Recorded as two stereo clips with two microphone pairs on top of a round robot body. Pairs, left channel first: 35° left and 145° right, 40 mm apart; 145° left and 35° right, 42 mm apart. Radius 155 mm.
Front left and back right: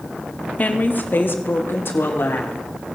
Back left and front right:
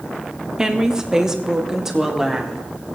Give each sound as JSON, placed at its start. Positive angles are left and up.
{"t": 0.6, "sound": "a woman speaking", "azimuth_deg": 25, "distance_m": 1.2}